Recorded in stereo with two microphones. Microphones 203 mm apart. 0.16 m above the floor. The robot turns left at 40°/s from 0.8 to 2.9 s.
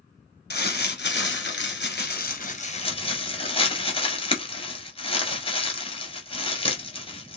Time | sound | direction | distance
0.5 | crumpling | 55° left (ahead or behind) | 1.1 m